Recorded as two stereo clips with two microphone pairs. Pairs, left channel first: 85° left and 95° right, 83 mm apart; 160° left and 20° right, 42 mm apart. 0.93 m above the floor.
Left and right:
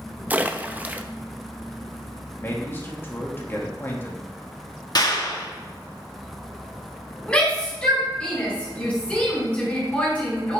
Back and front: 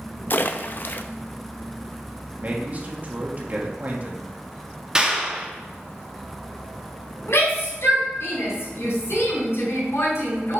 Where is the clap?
50° left, 1.5 m.